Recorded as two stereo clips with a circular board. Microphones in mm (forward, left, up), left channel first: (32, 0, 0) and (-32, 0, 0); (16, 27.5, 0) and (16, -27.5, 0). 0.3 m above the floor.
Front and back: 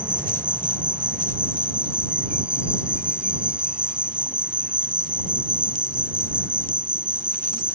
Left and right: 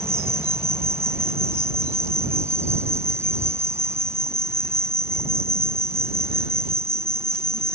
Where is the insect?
110° right.